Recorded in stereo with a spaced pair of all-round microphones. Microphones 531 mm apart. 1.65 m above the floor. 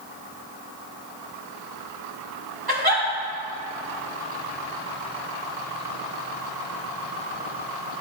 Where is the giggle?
45° right (ahead or behind), 2 m.